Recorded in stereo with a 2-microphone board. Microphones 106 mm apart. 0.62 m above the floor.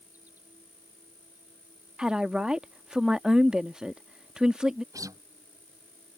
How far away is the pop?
I don't hear a pop.